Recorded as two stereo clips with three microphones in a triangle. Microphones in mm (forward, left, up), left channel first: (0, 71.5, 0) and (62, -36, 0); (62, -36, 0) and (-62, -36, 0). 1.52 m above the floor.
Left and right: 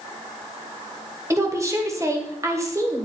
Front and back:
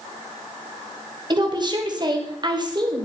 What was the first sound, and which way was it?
A woman speaking, 125° right.